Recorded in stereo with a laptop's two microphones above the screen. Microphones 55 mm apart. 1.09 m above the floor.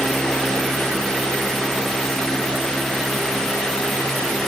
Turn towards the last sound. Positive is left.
turn(degrees=10)  # may be behind; listen again after turning